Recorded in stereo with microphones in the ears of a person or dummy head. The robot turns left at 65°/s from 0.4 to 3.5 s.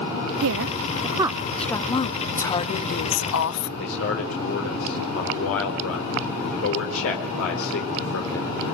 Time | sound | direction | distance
0.4 | a woman speaking | 80° right | 0.7 m
2.4 | a woman speaking | 175° left | 1.5 m
3.8 | a man speaking | 80° left | 4 m